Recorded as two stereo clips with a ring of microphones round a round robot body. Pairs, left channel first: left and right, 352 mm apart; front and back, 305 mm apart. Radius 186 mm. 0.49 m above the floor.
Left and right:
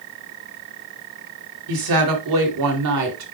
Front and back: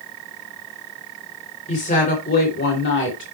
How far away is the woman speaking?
About 2.5 m.